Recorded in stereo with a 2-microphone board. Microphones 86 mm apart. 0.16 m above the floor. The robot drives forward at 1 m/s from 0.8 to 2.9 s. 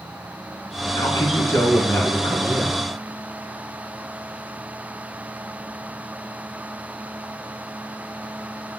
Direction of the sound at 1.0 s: 40° left (ahead or behind).